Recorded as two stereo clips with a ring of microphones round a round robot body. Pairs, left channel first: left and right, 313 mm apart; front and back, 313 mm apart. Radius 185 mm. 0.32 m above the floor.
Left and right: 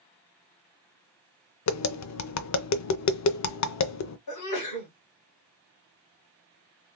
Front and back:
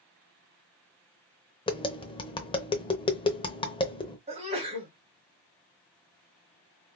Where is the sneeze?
110° left, 1.9 m.